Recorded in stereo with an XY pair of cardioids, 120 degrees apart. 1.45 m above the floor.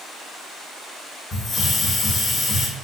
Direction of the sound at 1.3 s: 45° left.